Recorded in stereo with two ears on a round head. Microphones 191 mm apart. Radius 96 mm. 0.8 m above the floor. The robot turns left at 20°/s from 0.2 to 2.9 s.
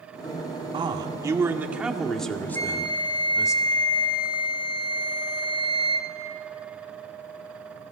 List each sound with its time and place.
0.7 s a man speaking: 155° right, 2 m; by 3.5 s 165° left, 2 m
2.5 s a flute: 15° left (ahead or behind), 2.0 m; by 6.1 s 20° left (ahead or behind), 2.0 m